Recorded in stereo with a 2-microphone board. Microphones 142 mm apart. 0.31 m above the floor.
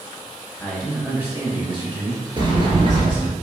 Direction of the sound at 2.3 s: 35° right (ahead or behind).